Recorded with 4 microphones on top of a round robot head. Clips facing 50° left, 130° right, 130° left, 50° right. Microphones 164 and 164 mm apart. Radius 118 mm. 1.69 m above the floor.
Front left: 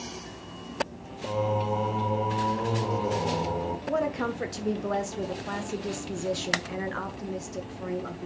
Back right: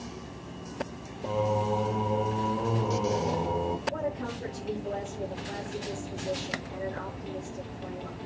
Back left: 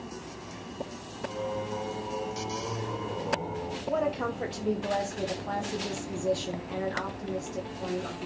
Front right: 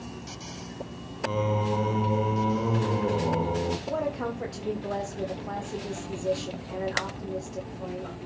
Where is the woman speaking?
40° left, 1.9 m.